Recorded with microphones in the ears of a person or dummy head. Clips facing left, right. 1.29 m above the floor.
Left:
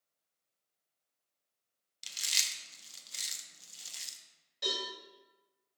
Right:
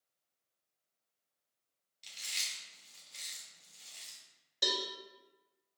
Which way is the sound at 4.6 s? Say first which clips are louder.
Right 1 dB; 65° right (ahead or behind).